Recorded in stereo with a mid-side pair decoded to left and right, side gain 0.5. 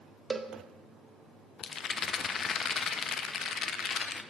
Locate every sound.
0.3 s a cowbell: 30° right, 0.6 m
1.6 s a rattle: 50° left, 0.5 m